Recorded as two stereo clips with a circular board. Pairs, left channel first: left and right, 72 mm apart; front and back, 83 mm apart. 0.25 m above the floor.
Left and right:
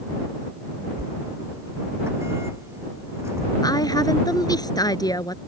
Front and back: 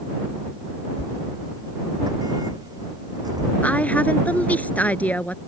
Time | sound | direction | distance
1.0 | a sliding door | 140° right | ?
3.6 | a woman speaking | 70° left | ?